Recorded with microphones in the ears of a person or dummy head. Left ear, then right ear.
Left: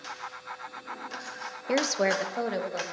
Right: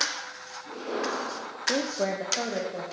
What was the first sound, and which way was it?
A woman speaking, 65° left (ahead or behind).